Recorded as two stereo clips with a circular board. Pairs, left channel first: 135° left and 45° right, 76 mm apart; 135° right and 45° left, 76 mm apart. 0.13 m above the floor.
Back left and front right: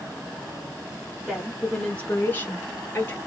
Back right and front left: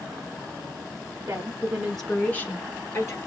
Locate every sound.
1.3 s a woman speaking: 40° left, 1.2 m; by 3.2 s 175° right, 1.8 m